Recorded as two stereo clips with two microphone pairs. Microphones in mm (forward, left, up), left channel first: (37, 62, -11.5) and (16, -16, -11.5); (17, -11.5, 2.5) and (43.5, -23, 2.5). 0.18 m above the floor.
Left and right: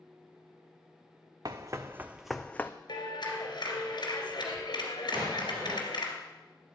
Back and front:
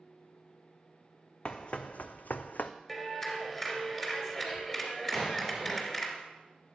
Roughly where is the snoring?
No snoring in this recording.